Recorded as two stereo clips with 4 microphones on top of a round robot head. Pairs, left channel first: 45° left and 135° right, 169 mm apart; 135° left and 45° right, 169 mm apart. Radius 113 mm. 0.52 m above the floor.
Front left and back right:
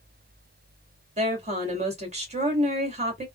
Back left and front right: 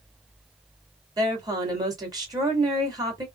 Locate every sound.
1.2 s a woman speaking: 105° right, 1.8 m